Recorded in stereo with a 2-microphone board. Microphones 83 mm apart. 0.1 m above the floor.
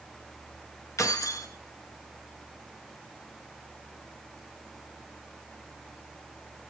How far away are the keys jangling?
About 2.5 m.